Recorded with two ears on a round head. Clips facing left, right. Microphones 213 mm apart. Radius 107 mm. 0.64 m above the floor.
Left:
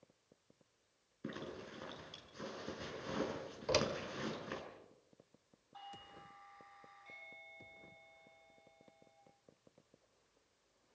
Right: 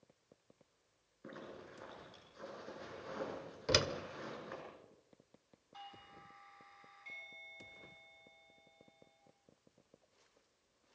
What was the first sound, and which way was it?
A zipper, 45° left (ahead or behind).